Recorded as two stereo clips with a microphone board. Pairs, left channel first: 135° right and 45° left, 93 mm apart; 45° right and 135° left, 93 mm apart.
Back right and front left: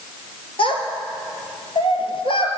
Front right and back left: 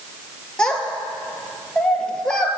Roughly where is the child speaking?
Behind right.